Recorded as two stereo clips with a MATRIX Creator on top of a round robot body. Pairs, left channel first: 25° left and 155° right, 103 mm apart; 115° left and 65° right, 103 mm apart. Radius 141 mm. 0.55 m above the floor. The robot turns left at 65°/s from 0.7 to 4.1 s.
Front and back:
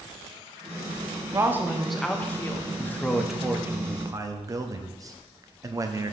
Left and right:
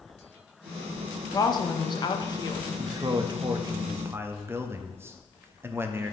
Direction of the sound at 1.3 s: 150° left.